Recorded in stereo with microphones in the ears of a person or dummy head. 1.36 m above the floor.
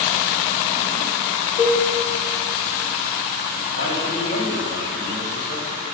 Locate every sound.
1.6 s a cowbell: 60° left (ahead or behind), 1.1 m
3.8 s a man speaking: 45° left (ahead or behind), 2.5 m